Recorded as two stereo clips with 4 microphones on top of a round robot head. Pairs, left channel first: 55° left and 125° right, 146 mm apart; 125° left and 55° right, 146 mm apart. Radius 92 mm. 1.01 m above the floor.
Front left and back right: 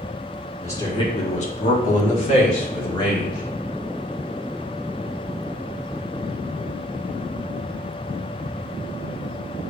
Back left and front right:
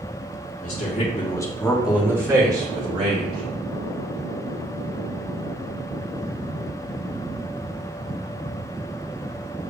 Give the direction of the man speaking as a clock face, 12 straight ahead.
8 o'clock.